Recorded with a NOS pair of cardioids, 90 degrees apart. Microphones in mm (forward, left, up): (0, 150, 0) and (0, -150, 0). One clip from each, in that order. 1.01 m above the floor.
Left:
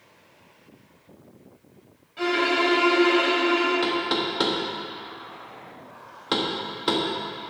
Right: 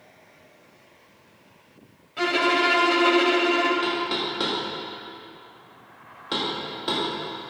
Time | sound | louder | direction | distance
2.2 | a violin | right 1 dB | 55° right | 2.5 m
3.8 | knocking | left 1 dB | 30° left | 1.6 m